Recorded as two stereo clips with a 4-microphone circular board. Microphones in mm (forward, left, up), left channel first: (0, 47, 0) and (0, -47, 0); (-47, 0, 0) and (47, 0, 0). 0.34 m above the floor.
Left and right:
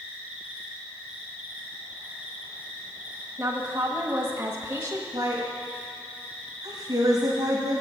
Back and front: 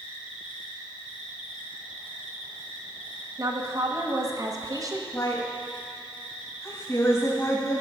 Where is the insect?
165° right, 3.5 m.